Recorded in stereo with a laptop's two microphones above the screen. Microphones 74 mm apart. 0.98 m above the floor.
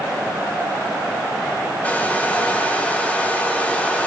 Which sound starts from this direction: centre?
A hair dryer, at 1.8 s.